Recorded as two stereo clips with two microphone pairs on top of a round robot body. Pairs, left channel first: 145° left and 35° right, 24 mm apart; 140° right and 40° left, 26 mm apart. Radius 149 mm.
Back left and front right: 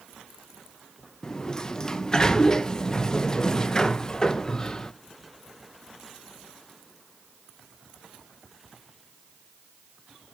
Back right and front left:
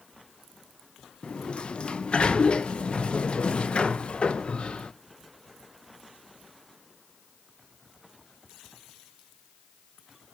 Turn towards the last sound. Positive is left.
turn(degrees=-170)